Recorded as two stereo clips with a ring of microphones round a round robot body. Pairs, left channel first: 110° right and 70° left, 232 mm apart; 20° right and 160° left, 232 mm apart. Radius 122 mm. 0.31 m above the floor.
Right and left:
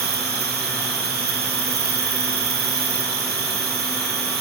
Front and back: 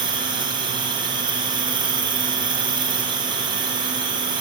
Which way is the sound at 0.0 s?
95° left.